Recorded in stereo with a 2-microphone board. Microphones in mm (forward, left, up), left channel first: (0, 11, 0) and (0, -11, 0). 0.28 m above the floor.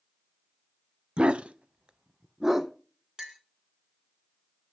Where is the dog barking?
55° right (ahead or behind), 0.6 m; by 2.7 s 15° right (ahead or behind), 1.0 m.